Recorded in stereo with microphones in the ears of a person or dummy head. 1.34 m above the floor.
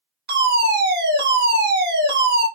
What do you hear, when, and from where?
0.3 s a fire alarm: 55° right (ahead or behind), 3 m